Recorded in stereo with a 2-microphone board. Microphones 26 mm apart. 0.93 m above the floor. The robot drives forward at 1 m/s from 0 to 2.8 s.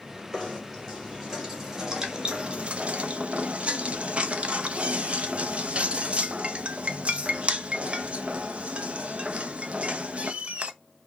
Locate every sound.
0.3 s knocking: 10° right (ahead or behind), 2.5 m; by 10.7 s 45° right (ahead or behind), 0.5 m